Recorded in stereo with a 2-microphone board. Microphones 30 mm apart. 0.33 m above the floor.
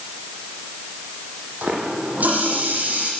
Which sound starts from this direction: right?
A running tap, at 1.6 s.